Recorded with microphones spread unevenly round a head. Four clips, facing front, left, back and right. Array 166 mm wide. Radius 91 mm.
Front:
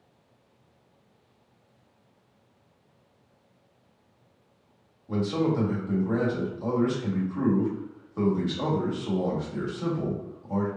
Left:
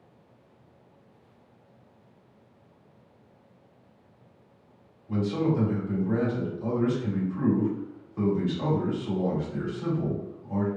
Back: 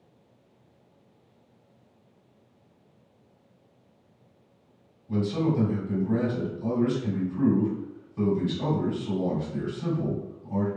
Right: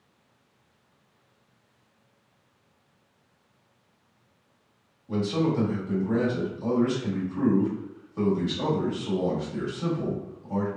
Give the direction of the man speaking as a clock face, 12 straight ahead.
12 o'clock.